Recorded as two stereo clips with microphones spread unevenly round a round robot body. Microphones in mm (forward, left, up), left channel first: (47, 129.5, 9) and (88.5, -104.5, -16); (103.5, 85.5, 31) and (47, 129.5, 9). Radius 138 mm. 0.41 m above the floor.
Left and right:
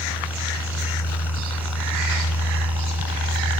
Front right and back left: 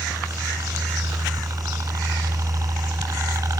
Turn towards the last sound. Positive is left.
turn(degrees=120)